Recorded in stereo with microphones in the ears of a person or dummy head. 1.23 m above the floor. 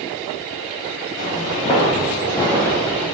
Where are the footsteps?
45° left (ahead or behind), 2 m; by 3.1 s 10° left (ahead or behind), 3 m.